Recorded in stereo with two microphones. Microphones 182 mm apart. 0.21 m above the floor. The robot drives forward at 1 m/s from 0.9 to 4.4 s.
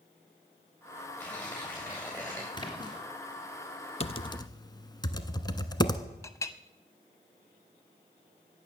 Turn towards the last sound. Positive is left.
turn(degrees=15)  # may be behind; listen again after turning